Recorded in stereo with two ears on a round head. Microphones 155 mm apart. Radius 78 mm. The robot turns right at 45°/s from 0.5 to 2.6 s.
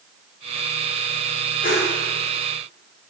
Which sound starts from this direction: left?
A whoosh, at 1.6 s.